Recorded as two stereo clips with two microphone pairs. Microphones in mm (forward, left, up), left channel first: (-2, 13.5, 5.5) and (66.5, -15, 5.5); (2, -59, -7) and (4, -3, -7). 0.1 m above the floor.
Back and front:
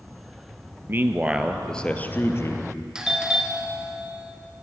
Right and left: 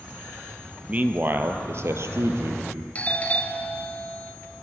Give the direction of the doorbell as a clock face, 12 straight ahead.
3 o'clock.